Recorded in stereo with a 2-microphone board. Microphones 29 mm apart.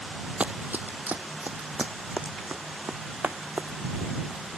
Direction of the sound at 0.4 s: 55° right (ahead or behind).